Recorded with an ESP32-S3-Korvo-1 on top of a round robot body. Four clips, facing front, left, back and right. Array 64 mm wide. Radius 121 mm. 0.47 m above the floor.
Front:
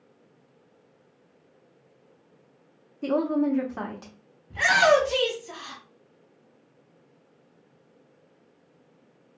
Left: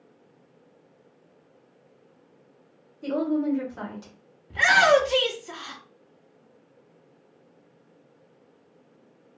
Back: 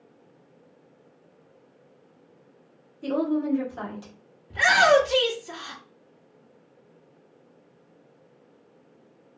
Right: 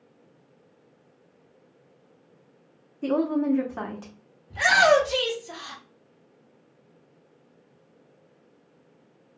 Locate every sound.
3.0 s a woman speaking: 45° right, 1.4 m
4.5 s a shout: 100° left, 1.5 m